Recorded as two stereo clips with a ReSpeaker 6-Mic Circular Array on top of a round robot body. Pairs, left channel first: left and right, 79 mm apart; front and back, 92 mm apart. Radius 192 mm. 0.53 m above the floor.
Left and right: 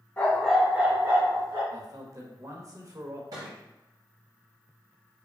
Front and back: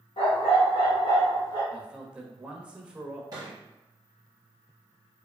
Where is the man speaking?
105° right, 1.1 m.